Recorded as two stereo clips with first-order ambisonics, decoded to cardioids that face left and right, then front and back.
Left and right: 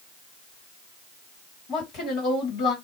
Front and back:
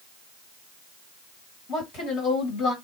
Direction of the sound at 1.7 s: 45° left.